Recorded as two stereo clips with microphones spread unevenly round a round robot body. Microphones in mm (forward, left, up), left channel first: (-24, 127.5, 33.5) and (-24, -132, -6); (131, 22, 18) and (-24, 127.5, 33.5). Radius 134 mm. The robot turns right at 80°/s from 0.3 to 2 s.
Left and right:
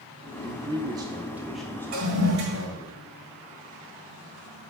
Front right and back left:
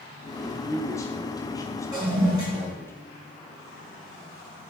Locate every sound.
0.4 s a man speaking: 110° right, 0.8 m; by 2.9 s 15° left, 0.8 m
1.9 s a toilet flushing: 145° right, 3 m; by 2.7 s 135° right, 3 m